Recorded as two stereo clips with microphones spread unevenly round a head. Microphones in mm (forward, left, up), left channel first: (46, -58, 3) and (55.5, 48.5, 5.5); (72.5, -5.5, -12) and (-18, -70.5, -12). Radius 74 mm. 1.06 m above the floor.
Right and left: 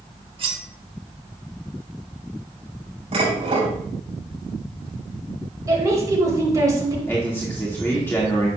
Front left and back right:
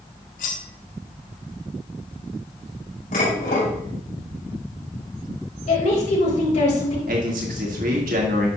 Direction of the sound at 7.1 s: 170° right.